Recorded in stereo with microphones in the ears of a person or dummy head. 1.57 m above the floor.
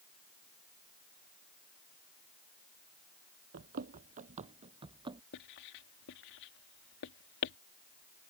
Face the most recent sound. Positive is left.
turn(degrees=70)  # may be behind; listen again after turning